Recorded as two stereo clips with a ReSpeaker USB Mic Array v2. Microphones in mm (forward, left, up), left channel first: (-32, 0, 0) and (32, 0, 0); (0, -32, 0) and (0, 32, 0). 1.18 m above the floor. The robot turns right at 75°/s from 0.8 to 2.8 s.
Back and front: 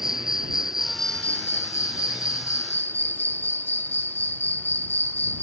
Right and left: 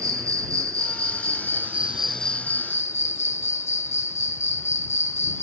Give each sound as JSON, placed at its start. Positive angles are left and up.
{"t": 0.0, "sound": "an insect", "azimuth_deg": 80}